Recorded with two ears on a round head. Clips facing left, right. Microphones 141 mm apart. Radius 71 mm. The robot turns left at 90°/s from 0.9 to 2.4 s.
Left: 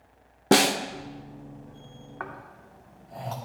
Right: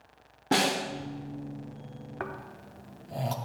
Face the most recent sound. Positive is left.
turn(degrees=-40)  # may be behind; listen again after turning